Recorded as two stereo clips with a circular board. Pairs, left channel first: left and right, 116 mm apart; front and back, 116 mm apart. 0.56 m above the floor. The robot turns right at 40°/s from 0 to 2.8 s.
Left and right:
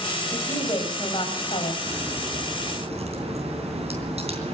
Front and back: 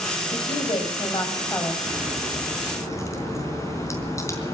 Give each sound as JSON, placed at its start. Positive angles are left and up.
{"t": 0.3, "sound": "a woman speaking", "azimuth_deg": 20, "distance_m": 3.0}
{"t": 1.9, "sound": "a crack", "azimuth_deg": -100, "distance_m": 4.0}